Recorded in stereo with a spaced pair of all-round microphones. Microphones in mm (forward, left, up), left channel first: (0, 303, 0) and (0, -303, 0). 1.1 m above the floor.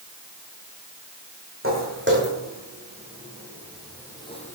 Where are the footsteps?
20° right (ahead or behind), 4 m; by 4.6 s 15° left (ahead or behind), 2 m.